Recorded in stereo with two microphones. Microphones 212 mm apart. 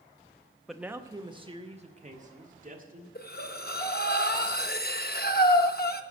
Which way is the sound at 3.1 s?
45° left (ahead or behind).